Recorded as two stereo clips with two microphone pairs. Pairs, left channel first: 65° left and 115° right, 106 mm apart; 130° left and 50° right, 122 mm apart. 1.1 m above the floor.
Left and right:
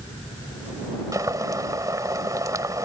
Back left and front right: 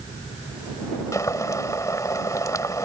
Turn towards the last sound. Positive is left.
turn(degrees=-170)